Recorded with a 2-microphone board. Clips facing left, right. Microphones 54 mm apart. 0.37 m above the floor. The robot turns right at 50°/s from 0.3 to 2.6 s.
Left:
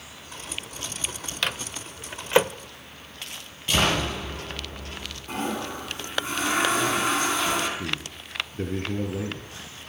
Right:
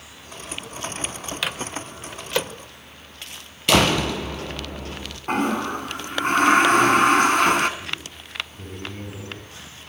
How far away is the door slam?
About 6.5 m.